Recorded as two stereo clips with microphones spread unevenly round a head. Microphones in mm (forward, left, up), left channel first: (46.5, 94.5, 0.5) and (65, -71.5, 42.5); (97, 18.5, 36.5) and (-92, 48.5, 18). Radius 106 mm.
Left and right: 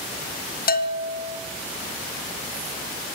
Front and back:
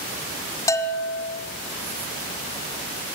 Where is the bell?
60° left, 2 m.